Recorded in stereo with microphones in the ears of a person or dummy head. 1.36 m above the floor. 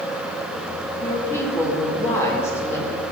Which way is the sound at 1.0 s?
15° left (ahead or behind).